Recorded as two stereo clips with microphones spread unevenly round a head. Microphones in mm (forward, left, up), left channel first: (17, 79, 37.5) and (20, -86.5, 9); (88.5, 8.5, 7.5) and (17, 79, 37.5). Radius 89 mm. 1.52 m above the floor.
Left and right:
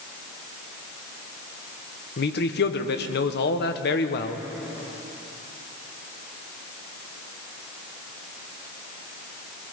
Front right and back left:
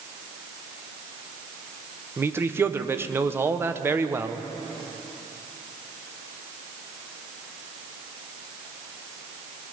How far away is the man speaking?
About 1.3 m.